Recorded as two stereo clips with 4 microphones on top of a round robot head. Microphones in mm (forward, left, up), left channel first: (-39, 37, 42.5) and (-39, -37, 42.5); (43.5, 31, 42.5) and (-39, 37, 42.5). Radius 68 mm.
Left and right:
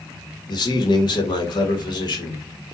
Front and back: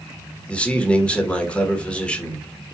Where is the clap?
No clap in this recording.